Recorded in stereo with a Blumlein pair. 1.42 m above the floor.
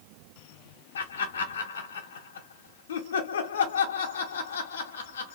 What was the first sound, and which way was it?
Laughter, 60° left.